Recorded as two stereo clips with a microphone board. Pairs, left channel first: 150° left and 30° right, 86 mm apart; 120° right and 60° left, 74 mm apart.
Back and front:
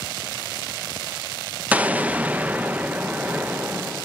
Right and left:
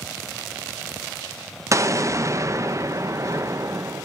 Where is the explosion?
40° left, 0.8 m.